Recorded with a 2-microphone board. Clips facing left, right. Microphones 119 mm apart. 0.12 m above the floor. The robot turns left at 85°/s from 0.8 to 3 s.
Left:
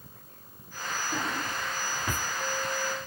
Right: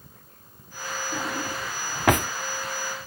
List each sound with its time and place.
1.1 s a drawer: 5° left (ahead or behind); by 2.3 s 80° right